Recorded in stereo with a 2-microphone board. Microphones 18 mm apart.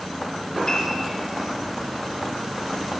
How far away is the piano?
About 4.5 m.